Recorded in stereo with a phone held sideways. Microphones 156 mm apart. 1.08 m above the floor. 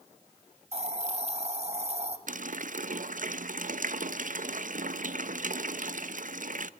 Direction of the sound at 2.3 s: 65° right (ahead or behind).